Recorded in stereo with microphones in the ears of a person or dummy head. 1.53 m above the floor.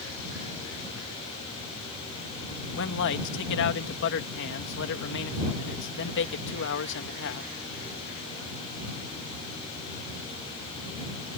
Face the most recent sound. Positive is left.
turn(degrees=65)  # may be behind; listen again after turning